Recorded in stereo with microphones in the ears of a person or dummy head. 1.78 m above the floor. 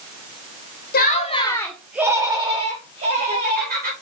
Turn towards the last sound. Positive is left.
turn(degrees=-45)  # may be behind; listen again after turning